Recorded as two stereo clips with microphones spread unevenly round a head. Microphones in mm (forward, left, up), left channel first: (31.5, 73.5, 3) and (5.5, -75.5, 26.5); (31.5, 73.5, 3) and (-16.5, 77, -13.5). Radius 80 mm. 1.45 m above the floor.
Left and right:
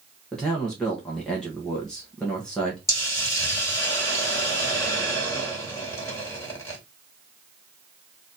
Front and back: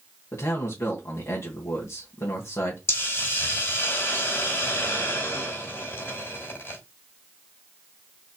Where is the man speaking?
5° right, 1.3 m.